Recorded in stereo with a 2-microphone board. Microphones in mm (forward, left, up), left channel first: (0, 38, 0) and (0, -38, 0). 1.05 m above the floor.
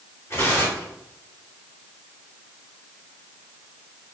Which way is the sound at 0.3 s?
35° left (ahead or behind).